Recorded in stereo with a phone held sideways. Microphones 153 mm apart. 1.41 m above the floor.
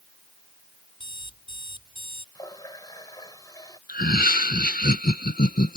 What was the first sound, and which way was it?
An alarm clock, 30° left (ahead or behind).